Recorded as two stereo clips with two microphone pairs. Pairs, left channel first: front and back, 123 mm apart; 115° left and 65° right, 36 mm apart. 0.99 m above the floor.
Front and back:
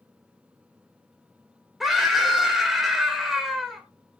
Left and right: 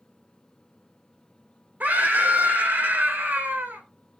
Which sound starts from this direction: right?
A scream, at 1.8 s.